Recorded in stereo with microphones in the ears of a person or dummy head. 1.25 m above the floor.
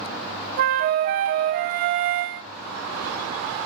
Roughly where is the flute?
Right.